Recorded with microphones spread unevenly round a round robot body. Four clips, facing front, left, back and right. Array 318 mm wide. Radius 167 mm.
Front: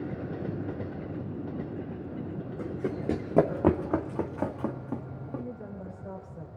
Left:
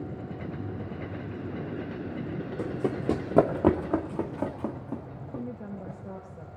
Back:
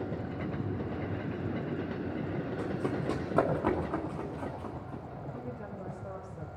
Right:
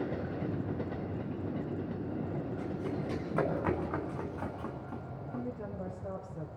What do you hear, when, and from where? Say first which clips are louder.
2.6 s running footsteps: left 6 dB, front 2 dB; 80° left, 2.0 m; by 5.4 s 30° left, 2.5 m
5.3 s a woman speaking: left 2 dB, front 6 dB; 105° right, 9 m